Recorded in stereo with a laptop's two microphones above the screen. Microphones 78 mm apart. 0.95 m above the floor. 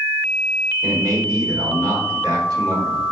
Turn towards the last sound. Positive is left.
turn(degrees=-55)  # may be behind; listen again after turning